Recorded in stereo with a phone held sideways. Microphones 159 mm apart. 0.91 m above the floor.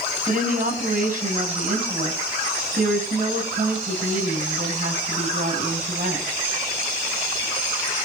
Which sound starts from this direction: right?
A woman speaking, at 0.3 s.